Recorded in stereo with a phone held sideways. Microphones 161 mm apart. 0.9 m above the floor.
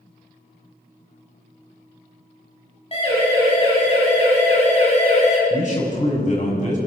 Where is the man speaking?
50° left (ahead or behind), 6.5 m.